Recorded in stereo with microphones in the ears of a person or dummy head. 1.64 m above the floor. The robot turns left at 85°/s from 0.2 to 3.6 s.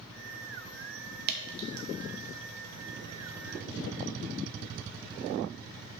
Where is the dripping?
50° right (ahead or behind), 1.3 m; by 1.9 s 75° right (ahead or behind), 1.3 m.